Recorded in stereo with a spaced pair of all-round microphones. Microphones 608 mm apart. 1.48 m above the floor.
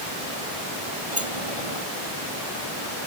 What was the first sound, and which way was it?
A sliding door, 50° right (ahead or behind).